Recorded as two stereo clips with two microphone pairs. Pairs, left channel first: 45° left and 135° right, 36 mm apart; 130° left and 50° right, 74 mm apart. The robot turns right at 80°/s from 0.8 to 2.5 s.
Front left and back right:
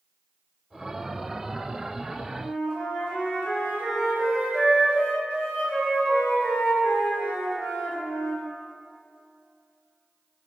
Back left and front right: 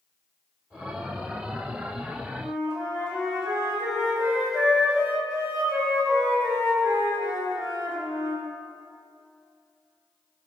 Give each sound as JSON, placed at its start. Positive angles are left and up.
{"t": 2.4, "sound": "a flute", "azimuth_deg": 20, "distance_m": 1.8}